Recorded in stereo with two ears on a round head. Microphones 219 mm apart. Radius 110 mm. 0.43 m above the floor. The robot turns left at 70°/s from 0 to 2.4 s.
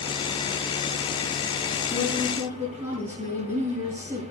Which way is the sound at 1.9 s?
25° left.